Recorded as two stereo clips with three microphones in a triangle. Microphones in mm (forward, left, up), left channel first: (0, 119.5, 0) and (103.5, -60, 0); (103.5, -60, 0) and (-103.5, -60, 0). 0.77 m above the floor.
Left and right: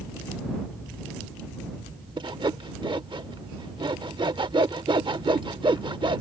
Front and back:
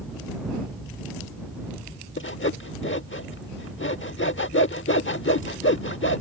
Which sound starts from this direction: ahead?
Sawing, at 2.2 s.